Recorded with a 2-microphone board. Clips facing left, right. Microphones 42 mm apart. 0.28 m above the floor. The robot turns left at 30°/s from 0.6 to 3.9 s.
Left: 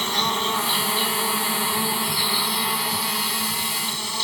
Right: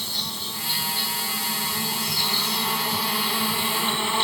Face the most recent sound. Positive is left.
turn(degrees=-30)